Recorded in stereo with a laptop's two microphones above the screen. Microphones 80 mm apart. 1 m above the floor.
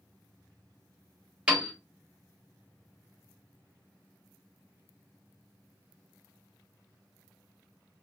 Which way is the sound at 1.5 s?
15° right (ahead or behind).